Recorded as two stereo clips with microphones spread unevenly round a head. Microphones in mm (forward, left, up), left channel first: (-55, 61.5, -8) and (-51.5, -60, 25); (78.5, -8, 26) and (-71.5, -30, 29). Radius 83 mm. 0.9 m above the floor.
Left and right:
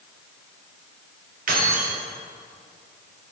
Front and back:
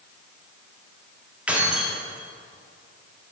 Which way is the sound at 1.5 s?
90° right.